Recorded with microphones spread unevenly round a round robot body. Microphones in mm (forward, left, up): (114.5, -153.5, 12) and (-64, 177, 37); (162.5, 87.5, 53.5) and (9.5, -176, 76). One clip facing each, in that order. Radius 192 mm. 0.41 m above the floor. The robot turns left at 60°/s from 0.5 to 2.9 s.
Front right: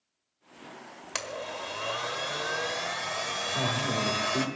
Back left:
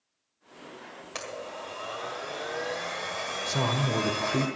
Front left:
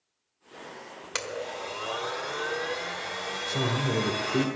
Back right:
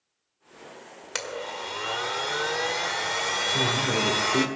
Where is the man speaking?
140° left, 1.7 m.